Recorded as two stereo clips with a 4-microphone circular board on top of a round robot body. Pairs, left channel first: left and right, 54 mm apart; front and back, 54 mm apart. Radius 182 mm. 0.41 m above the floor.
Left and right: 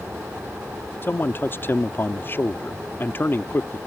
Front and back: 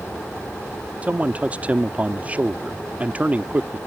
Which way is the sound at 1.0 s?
125° left.